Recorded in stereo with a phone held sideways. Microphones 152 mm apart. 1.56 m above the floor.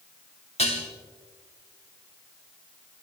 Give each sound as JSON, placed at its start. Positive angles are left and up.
{"t": 0.6, "sound": "dishes clattering", "side_deg": 45, "distance_m": 2.5}